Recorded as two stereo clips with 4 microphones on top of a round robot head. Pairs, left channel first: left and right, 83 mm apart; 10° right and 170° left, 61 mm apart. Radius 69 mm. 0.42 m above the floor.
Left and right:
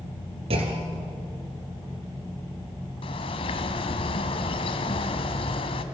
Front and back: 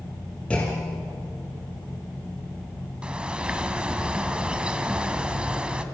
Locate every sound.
0.5 s a clunk: 85° right, 2.5 m
3.0 s a bird: 95° left, 1.7 m